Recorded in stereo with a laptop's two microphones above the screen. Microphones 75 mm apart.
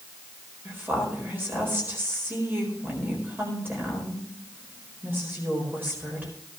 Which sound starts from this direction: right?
A woman speaking, at 0.7 s.